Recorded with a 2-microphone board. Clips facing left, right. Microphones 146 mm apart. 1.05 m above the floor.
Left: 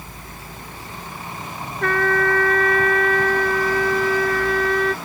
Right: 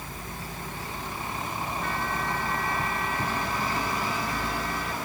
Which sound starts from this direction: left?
A trumpet, at 1.8 s.